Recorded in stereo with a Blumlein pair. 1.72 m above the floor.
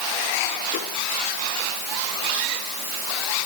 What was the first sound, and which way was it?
Only background noise.